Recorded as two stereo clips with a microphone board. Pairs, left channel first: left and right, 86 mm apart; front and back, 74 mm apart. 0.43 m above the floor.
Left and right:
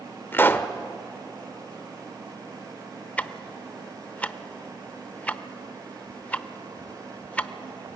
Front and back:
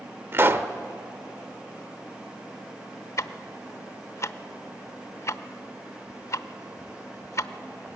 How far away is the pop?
About 0.8 m.